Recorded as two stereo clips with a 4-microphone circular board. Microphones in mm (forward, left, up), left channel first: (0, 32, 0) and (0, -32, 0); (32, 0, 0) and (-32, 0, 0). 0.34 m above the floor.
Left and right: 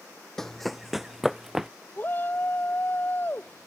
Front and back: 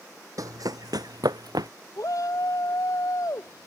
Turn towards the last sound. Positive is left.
turn(degrees=30)